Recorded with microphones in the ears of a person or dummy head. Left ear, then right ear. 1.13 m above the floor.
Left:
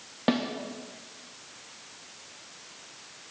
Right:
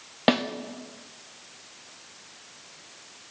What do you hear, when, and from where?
0.3 s a snare drum: 30° right (ahead or behind), 0.7 m